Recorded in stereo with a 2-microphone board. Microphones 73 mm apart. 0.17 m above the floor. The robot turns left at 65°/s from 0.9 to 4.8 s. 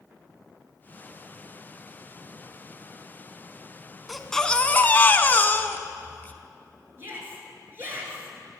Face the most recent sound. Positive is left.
turn(degrees=-30)  # may be behind; listen again after turning